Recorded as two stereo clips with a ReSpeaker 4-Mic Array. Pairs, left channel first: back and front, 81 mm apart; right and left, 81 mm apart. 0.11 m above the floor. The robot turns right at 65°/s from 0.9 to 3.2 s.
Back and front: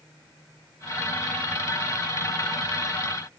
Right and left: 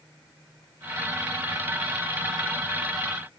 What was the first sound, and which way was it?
Only background noise.